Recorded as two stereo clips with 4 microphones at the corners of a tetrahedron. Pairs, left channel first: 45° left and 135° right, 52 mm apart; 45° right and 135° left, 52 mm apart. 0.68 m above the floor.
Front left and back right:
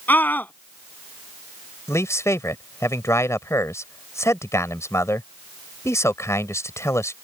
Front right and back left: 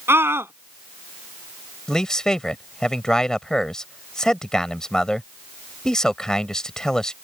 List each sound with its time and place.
0.1 s a scream: 95° left
1.9 s a man speaking: 30° left